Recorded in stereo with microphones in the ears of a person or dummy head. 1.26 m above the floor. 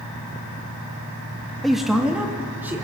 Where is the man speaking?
Centre (ahead or behind), 1.7 m; by 2.9 s 10° right (ahead or behind), 3.5 m.